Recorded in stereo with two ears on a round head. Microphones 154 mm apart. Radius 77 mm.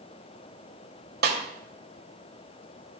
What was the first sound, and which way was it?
A snare drum, 60° right (ahead or behind).